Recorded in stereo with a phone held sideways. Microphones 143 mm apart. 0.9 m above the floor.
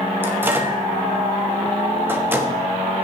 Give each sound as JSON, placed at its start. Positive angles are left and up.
{"t": 0.2, "sound": "a microwave", "side_deg": -15, "distance_m": 1.2}